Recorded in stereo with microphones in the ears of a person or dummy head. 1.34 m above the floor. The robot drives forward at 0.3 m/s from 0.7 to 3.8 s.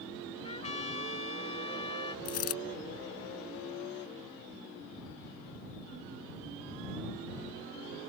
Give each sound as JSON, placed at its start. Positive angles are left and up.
{"t": 0.4, "sound": "a trumpet", "side_deg": 35}
{"t": 2.2, "sound": "a dropped coin", "side_deg": 45}